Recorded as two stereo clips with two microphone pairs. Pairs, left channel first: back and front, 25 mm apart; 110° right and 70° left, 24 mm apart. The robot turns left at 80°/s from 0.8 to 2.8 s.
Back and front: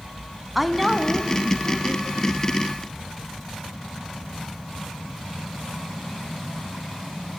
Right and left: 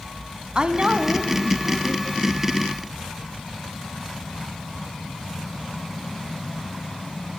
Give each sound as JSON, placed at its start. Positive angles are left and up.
{"t": 0.6, "sound": "a woman speaking", "azimuth_deg": 75, "distance_m": 1.3}